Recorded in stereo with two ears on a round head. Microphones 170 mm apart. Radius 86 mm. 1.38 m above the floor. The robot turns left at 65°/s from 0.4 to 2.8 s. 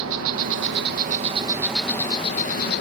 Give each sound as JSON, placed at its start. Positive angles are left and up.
{"t": 0.0, "sound": "an insect", "azimuth_deg": -90}